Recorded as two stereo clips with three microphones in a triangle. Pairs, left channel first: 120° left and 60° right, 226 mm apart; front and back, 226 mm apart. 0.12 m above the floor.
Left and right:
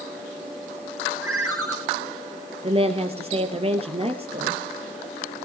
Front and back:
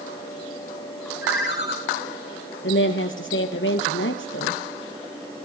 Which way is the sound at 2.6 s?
Straight ahead.